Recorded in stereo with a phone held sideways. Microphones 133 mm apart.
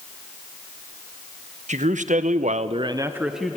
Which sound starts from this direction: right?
A man speaking, at 1.7 s.